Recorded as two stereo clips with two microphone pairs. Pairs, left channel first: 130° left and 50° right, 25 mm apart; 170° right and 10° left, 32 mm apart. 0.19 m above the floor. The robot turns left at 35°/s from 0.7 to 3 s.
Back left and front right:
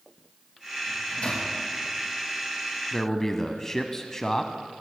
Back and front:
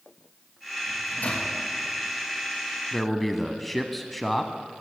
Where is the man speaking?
115° left, 1.0 m; by 4.8 s 110° left, 1.0 m.